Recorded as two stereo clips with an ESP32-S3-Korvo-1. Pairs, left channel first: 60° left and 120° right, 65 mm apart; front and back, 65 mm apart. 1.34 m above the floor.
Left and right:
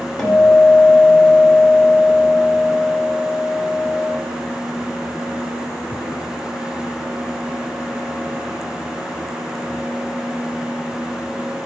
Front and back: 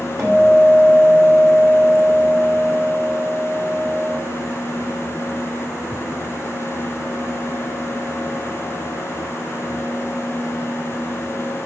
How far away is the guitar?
About 2 m.